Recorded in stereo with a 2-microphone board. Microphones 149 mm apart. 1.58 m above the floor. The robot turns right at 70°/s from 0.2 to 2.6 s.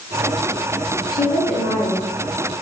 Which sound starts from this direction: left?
A woman speaking, at 1.1 s.